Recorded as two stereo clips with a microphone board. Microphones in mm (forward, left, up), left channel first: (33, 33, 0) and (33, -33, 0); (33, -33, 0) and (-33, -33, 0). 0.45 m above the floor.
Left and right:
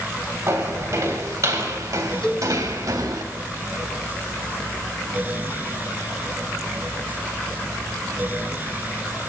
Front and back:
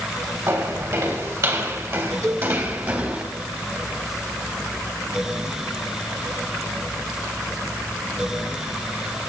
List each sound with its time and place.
0.5 s footsteps: 140° right, 5.5 m; by 3.2 s 115° right, 2 m
2.2 s a cowbell: 170° left, 2.5 m